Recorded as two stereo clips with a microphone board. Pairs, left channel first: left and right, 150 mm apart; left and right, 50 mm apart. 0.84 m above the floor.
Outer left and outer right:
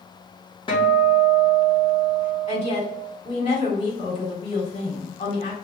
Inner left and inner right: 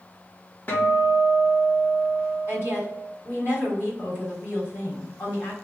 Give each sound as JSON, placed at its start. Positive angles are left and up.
{"t": 0.7, "sound": "a guitar", "side_deg": 30, "distance_m": 1.2}
{"t": 2.5, "sound": "a woman speaking", "side_deg": 45, "distance_m": 1.8}